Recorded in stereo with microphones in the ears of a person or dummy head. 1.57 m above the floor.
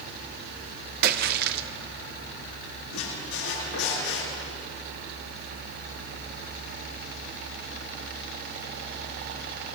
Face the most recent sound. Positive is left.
turn(degrees=80)